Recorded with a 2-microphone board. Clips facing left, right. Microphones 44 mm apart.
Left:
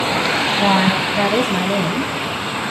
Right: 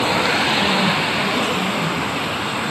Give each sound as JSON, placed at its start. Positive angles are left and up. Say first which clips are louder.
{"t": 0.6, "sound": "a woman speaking", "louder": "left 2 dB", "side_deg": 50, "distance_m": 4.5}